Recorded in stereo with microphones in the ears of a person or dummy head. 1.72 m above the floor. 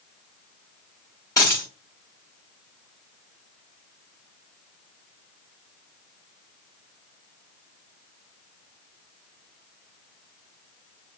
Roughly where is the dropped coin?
Centre.